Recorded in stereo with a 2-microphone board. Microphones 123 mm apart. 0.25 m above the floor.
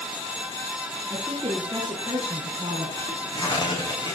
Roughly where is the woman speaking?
Right.